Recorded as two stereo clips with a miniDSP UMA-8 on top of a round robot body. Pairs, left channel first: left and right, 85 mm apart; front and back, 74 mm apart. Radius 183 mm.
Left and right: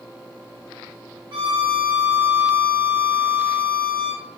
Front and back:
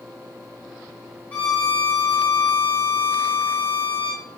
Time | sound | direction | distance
1.3 | a violin | 65° right | 1.1 m